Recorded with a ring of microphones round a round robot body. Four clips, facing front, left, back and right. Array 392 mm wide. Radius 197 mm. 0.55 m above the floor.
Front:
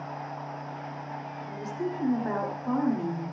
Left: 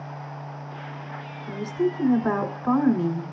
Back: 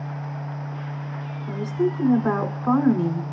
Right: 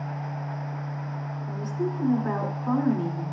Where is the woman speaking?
165° left, 3 m.